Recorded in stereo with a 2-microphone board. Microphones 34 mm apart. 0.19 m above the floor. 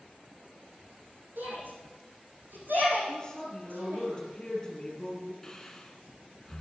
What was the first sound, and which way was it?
A shout, 75° right (ahead or behind).